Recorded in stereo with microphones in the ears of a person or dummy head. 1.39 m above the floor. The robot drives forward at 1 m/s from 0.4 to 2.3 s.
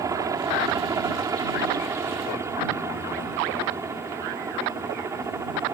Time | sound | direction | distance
0.0 | a helicopter | 15° right (ahead or behind) | ?